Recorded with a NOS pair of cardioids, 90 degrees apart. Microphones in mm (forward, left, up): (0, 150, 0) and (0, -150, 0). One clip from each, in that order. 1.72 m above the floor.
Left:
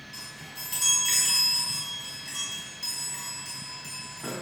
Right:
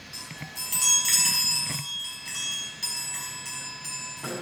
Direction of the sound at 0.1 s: 25° right.